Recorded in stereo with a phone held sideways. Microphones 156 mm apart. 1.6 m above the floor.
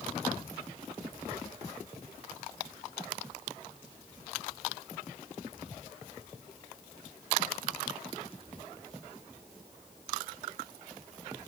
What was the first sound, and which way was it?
Only background noise.